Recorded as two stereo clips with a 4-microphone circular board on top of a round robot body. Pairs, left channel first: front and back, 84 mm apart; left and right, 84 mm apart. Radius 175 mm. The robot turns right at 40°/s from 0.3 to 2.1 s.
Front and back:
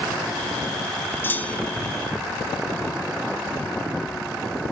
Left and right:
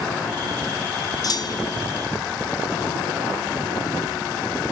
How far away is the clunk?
About 0.8 m.